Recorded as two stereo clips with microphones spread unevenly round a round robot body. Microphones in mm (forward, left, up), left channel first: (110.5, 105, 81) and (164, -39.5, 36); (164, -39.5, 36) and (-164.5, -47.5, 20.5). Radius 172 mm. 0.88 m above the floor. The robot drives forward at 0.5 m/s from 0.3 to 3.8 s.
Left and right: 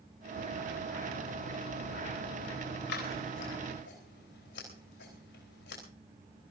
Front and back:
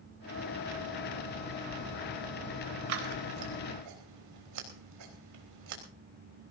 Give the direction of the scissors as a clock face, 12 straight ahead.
7 o'clock.